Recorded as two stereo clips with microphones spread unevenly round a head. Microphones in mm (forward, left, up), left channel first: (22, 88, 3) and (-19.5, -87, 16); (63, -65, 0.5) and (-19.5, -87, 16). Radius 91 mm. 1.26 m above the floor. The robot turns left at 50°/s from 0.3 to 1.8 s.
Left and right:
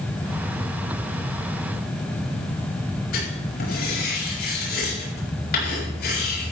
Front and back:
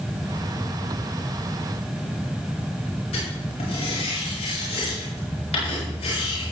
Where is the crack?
No crack in this recording.